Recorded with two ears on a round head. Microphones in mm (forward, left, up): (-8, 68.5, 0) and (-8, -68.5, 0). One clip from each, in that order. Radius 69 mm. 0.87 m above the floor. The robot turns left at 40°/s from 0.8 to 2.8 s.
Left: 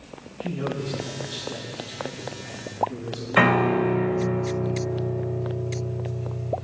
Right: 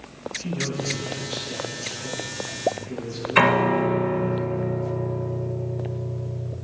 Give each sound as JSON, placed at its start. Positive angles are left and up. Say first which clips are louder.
{"t": 0.4, "sound": "a man speaking", "louder": "left 1 dB", "azimuth_deg": -15, "distance_m": 7.0}
{"t": 3.4, "sound": "a piano", "louder": "right 1 dB", "side_deg": -75, "distance_m": 2.0}